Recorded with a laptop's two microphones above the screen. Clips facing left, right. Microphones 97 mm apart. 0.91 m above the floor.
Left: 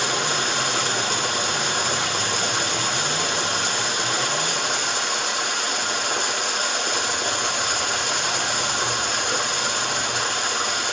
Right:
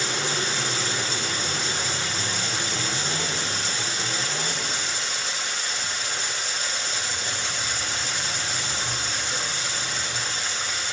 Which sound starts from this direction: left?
Running water, at 0.0 s.